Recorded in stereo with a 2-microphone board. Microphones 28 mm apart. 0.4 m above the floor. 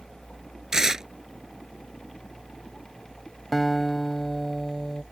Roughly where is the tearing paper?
Right.